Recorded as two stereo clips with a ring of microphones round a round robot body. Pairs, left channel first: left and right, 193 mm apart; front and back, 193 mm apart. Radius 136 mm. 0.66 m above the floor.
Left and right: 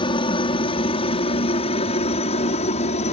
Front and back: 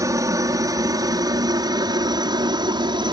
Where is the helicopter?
125° left; by 3.1 s 130° left.